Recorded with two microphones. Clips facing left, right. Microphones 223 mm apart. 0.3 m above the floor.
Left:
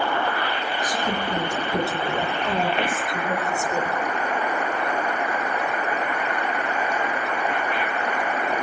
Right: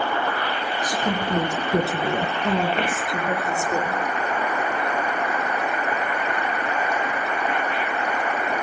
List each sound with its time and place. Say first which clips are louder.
0.8 s a woman speaking: right 2 dB; 75° right (ahead or behind), 5 m; by 4.0 s 30° right (ahead or behind), 4.5 m